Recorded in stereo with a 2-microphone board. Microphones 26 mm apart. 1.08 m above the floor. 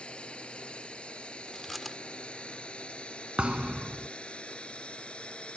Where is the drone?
45° left (ahead or behind).